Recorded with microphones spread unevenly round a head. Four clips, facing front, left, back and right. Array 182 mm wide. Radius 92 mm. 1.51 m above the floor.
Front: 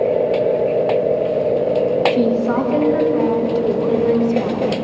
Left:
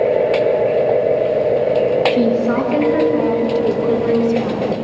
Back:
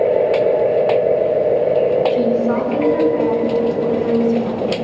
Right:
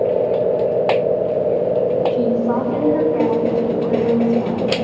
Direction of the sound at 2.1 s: 60° left.